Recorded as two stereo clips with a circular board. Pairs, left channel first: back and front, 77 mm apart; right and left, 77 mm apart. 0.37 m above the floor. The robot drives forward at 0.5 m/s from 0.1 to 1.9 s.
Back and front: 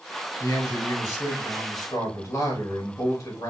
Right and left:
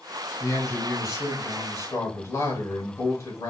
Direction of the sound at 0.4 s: 130° right.